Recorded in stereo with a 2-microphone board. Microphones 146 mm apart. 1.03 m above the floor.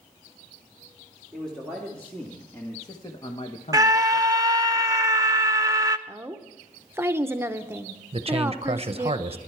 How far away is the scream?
About 0.5 m.